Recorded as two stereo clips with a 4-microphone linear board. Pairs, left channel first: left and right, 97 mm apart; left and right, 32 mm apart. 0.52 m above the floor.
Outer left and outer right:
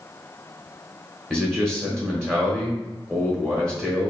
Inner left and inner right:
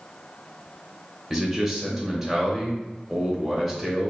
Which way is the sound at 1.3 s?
5° left (ahead or behind).